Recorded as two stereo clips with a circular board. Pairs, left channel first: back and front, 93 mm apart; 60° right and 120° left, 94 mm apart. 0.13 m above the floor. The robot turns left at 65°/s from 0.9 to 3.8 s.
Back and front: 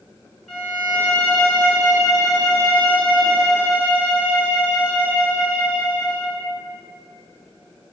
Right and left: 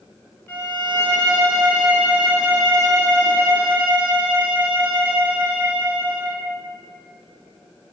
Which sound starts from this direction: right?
A violin, at 0.5 s.